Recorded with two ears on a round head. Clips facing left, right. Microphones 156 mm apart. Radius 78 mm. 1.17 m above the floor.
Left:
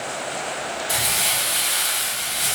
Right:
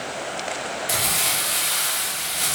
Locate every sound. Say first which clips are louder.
0.9 s crumpling: even; 65° right (ahead or behind), 1.2 m